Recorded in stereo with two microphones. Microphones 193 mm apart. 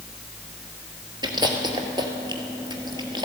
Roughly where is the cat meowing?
No cat meowing in this recording.